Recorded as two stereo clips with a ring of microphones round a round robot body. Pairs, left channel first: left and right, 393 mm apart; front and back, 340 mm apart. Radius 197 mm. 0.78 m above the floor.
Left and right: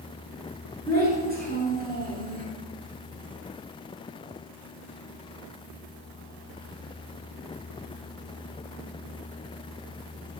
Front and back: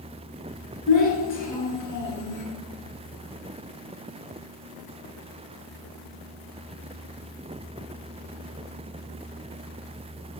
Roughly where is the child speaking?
Ahead right.